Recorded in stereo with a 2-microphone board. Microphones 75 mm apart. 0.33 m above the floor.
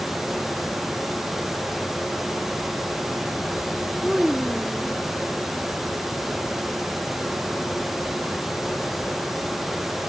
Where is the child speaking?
5° right (ahead or behind).